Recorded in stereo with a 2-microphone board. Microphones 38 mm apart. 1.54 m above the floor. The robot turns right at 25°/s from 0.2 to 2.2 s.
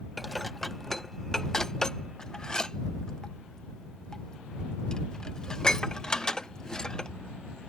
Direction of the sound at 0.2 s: 5° left (ahead or behind).